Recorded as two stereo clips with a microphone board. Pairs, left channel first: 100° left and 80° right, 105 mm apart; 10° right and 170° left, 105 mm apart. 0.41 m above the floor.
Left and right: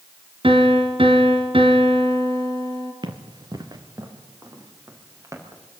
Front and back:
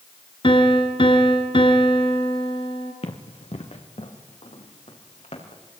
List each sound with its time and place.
0.4 s a piano: 45° right, 3 m
3.0 s running footsteps: 35° right, 2.5 m; by 5.6 s 15° right, 5.5 m